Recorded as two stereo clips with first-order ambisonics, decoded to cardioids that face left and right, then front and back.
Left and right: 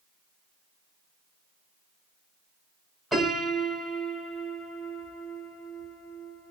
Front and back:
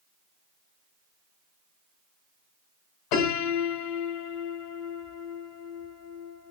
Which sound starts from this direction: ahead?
A piano, at 3.1 s.